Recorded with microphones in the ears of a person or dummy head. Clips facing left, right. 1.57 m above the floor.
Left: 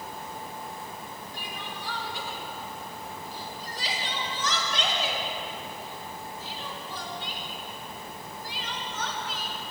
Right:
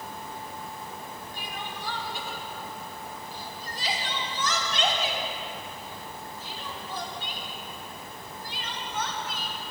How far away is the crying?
About 4.5 m.